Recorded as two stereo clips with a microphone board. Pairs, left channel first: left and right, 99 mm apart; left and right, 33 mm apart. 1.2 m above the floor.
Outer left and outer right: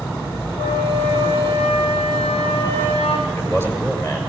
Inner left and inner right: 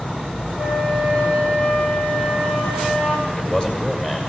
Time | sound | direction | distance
0.6 | a flute | 75° left (ahead or behind) | 8.5 m
3.3 | a man speaking | 25° left (ahead or behind) | 7 m